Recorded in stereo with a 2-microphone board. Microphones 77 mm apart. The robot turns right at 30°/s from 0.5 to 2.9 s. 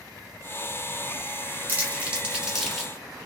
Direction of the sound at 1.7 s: 25° right (ahead or behind).